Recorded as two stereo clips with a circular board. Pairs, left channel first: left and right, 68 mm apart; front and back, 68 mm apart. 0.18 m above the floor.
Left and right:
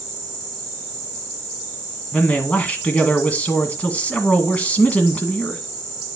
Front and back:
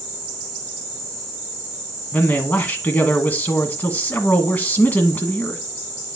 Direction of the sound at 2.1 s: 40° left.